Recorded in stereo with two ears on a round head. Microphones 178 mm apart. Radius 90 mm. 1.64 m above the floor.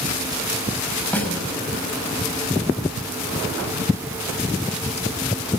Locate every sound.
1.1 s a snare drum: 10° left (ahead or behind), 5.5 m